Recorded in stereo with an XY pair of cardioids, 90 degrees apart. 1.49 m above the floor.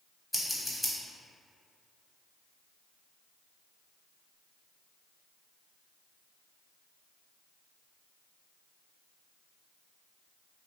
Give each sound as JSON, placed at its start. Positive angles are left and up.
{"t": 0.3, "sound": "scissors", "azimuth_deg": 15, "distance_m": 0.8}